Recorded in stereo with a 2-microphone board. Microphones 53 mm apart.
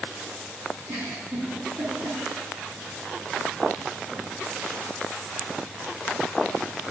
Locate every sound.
0.9 s a giggle: 40° right (ahead or behind), 2.5 m